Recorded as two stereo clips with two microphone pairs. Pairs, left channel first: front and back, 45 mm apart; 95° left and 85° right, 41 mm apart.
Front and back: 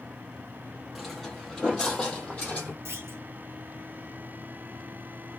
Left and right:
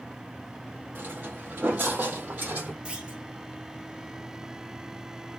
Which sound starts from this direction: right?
Footsteps, at 0.9 s.